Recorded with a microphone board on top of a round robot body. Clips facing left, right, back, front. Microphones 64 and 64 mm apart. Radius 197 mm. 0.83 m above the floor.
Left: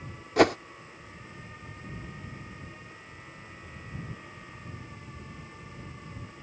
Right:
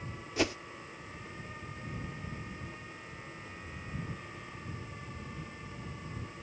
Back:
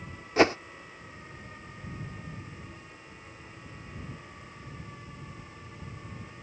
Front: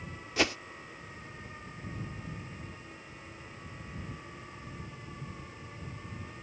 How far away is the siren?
No siren in this recording.